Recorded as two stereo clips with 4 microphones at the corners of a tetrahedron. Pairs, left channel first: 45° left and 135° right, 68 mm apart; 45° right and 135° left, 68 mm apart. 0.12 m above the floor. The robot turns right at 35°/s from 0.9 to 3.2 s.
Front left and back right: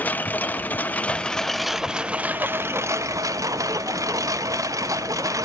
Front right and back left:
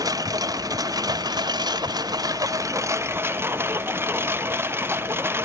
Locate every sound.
0.0 s a lawn mower: 110° left; by 5.5 s 170° right